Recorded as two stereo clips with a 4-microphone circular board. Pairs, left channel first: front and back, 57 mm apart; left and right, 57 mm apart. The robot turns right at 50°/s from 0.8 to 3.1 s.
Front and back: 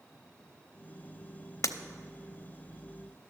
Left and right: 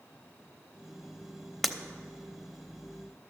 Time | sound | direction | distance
1.6 | breaking glass | straight ahead | 0.6 m